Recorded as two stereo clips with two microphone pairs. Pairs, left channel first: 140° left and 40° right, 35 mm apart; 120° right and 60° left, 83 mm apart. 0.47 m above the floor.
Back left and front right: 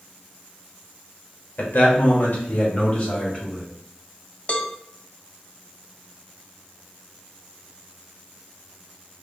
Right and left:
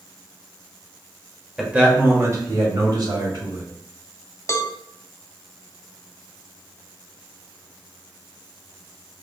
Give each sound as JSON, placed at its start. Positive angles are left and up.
{"t": 1.6, "sound": "a man speaking", "azimuth_deg": 140, "distance_m": 1.4}
{"t": 4.5, "sound": "a cowbell", "azimuth_deg": -175, "distance_m": 0.5}